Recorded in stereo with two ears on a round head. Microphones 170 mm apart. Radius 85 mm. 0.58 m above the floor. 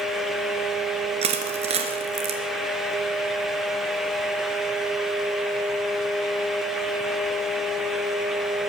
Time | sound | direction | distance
1.2 | crushing | 30° right (ahead or behind) | 2 m